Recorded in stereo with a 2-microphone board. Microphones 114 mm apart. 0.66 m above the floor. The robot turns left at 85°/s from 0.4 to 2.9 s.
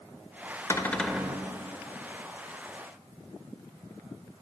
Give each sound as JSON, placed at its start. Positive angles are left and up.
{"t": 0.7, "sound": "a cupboard door", "azimuth_deg": 30, "distance_m": 0.5}